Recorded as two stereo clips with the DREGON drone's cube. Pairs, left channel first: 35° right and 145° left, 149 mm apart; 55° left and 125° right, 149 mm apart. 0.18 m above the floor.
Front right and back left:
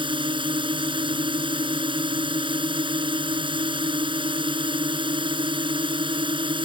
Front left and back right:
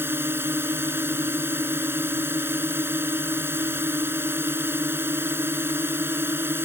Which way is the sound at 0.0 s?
170° left.